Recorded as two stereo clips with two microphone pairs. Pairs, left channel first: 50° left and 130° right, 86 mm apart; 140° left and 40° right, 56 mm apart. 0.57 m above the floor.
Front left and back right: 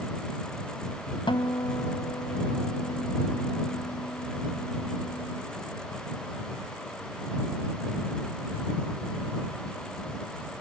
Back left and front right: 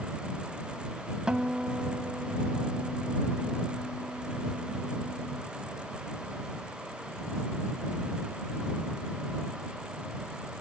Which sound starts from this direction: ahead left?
A guitar, at 1.3 s.